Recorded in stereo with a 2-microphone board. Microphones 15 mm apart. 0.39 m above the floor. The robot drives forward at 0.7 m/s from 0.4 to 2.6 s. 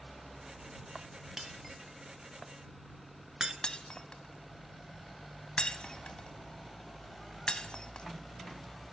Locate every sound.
1.4 s breaking glass: 25° right (ahead or behind), 2 m; by 3.5 s 40° right (ahead or behind), 1.3 m
3.6 s breaking glass: 70° left (ahead or behind), 1.3 m